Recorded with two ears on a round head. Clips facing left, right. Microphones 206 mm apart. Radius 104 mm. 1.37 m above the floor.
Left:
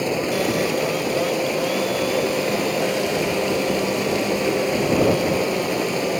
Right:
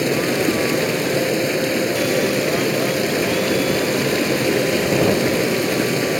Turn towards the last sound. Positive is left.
turn(degrees=-20)  # may be behind; listen again after turning